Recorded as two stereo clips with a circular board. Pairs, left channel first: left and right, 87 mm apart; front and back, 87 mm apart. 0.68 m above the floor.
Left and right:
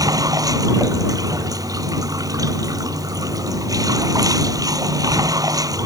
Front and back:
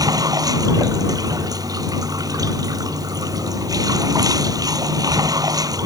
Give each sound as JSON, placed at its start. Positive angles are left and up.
{"t": 0.0, "sound": "running water", "azimuth_deg": -135}